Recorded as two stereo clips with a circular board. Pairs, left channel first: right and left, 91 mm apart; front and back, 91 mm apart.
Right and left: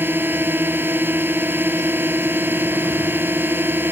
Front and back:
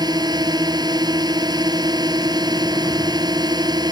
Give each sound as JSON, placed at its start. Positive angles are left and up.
{"t": 0.0, "sound": "a drone", "azimuth_deg": 155}